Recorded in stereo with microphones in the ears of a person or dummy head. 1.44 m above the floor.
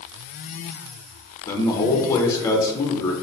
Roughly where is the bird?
I don't hear a bird.